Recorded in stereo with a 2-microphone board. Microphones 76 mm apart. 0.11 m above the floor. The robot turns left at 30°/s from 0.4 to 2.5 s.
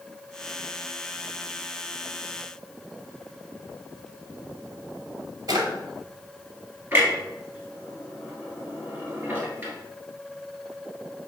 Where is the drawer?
55° right (ahead or behind), 1.0 m.